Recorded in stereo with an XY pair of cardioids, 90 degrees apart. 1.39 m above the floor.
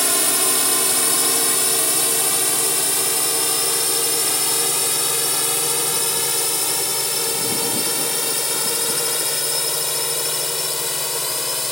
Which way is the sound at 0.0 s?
5° left.